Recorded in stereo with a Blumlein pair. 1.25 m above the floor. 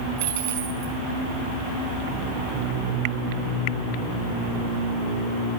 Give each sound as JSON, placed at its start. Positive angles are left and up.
{"t": 0.2, "sound": "a dropped coin", "azimuth_deg": -55, "distance_m": 4.5}